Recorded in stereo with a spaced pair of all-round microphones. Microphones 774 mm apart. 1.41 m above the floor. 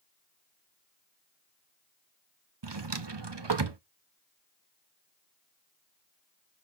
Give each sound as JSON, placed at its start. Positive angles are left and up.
{"t": 2.6, "sound": "a drawer", "side_deg": -35, "distance_m": 0.8}